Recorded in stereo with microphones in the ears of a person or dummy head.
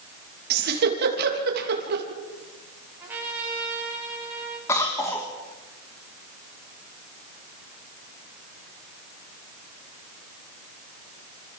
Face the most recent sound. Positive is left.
turn(degrees=15)  # may be behind; listen again after turning